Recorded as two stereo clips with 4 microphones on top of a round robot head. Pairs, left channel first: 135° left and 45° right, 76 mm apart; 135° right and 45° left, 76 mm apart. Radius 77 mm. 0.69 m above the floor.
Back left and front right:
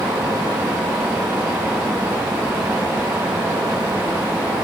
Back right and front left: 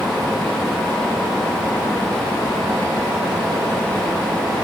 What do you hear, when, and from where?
Only background noise.